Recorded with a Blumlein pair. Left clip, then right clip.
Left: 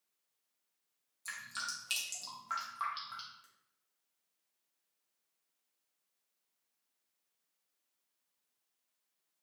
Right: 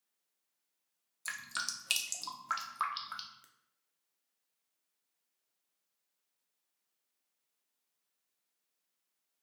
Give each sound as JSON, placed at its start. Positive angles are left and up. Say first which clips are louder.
{"t": 1.2, "sound": "dripping", "louder": "right 3 dB", "azimuth_deg": -25, "distance_m": 0.6}